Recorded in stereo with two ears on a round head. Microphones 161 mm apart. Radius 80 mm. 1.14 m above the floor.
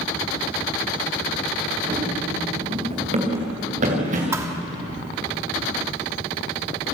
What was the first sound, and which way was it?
Running footsteps, 30° right (ahead or behind).